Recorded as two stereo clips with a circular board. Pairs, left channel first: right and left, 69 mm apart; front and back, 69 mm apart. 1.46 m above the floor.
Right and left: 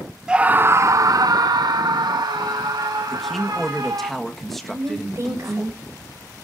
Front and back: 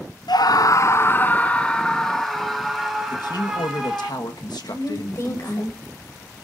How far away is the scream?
About 0.7 m.